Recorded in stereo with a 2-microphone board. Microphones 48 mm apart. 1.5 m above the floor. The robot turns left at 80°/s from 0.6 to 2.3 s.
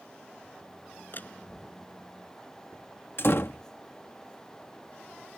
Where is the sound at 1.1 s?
45° left (ahead or behind); by 1.9 s 20° right (ahead or behind).